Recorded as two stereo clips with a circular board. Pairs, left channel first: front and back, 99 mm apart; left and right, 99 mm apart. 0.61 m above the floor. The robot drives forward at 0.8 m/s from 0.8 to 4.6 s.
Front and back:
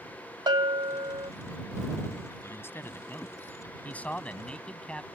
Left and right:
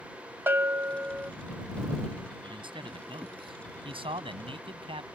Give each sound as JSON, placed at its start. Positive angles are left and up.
{"t": 0.5, "sound": "a bell", "azimuth_deg": -155}
{"t": 2.4, "sound": "a man speaking", "azimuth_deg": -65}